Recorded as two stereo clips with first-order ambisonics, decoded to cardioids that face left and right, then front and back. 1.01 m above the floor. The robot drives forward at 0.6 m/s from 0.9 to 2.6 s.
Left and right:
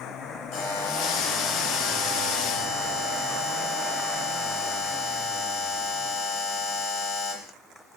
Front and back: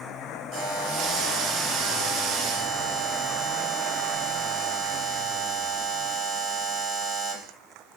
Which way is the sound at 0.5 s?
125° left.